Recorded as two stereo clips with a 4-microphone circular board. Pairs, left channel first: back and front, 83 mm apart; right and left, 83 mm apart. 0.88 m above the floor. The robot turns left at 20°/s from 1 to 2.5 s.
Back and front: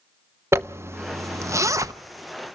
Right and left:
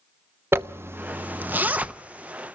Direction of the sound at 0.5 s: 40° left.